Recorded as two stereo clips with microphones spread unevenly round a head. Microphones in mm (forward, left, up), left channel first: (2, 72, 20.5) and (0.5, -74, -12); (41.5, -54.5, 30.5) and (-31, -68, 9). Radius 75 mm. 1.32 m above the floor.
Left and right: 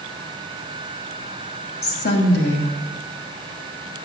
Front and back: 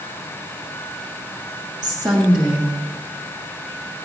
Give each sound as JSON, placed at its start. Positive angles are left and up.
{"t": 1.8, "sound": "a woman speaking", "azimuth_deg": 110, "distance_m": 3.0}